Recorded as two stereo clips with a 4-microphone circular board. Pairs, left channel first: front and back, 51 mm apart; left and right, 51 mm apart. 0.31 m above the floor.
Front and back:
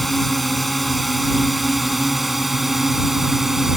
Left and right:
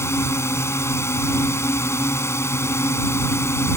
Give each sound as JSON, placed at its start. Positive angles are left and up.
{"t": 0.0, "sound": "a drone", "azimuth_deg": 85}